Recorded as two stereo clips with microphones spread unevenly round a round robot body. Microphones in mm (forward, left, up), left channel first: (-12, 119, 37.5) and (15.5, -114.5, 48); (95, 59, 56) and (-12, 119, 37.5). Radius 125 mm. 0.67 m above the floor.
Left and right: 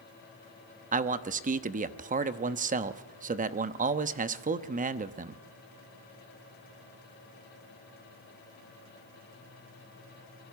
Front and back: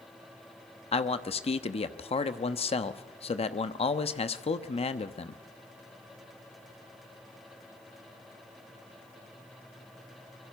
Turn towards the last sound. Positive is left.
turn(degrees=-40)